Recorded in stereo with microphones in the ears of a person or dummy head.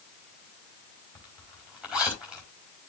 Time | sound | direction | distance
1.1 | a zipper | 5° right (ahead or behind) | 3 m